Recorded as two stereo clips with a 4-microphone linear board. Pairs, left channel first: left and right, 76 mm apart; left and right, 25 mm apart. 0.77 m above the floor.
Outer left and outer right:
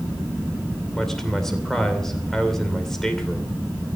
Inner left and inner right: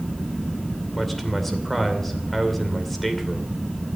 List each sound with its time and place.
0.9 s a man speaking: 5° left (ahead or behind), 2.5 m